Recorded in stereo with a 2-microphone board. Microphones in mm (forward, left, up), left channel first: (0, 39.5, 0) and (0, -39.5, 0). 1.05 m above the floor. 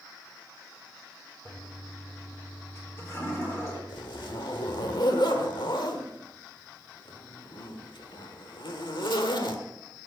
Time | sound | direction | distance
1.4 | a toilet flushing | 35° left (ahead or behind) | 3.5 m
3.9 | a zipper | 75° left (ahead or behind) | 1.5 m